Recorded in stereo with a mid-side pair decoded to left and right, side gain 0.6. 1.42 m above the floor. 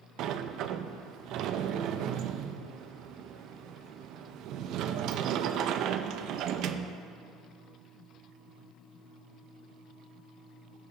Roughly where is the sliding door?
Ahead right.